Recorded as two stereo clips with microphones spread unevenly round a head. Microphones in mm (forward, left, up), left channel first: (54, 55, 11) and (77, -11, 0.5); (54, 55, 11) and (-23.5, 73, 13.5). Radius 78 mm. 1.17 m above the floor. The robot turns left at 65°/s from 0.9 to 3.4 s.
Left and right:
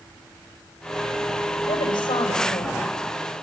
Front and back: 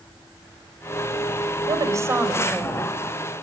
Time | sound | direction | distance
1.7 | a woman speaking | 135° left | 6 m